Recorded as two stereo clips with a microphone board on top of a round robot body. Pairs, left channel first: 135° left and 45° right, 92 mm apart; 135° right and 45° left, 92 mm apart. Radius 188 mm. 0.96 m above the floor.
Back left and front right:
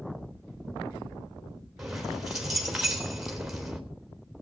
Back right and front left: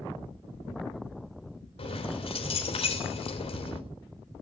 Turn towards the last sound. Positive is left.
turn(degrees=-130)